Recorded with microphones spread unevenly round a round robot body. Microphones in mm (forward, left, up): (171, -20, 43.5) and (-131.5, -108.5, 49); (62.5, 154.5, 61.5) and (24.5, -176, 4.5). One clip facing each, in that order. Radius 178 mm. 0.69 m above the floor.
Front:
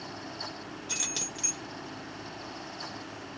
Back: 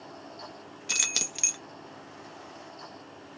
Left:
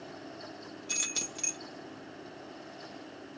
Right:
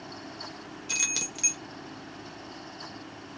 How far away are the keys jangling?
About 0.6 m.